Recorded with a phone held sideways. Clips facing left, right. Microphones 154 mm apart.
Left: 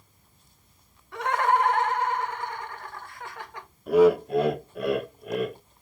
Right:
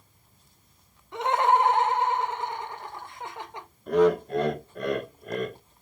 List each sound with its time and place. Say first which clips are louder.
1.1 s laughter: right 1 dB; 20° right (ahead or behind), 0.6 m
3.9 s laughter: left 3 dB; 5° left (ahead or behind), 0.6 m